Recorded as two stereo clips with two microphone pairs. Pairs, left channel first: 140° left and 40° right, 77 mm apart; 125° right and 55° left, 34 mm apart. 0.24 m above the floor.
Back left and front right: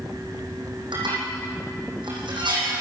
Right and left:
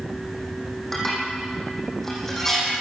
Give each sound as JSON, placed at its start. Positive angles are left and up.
{"t": 0.9, "sound": "dishes clattering", "azimuth_deg": -45, "distance_m": 9.0}